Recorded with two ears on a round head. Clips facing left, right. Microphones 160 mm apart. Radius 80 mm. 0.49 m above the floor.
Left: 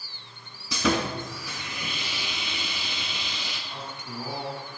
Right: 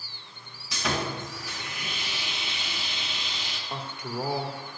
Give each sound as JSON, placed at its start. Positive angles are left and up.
{"t": 0.7, "sound": "sawing", "side_deg": 75, "distance_m": 2.0}
{"t": 3.7, "sound": "a man speaking", "side_deg": -50, "distance_m": 1.6}